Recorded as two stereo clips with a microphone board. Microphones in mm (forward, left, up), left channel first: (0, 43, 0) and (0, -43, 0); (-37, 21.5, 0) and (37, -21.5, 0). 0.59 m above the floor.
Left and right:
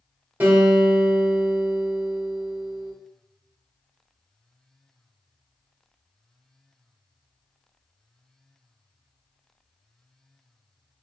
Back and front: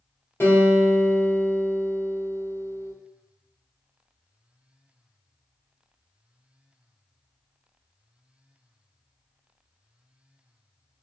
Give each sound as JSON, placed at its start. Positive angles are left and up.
{"t": 0.4, "sound": "a guitar", "azimuth_deg": -155, "distance_m": 1.6}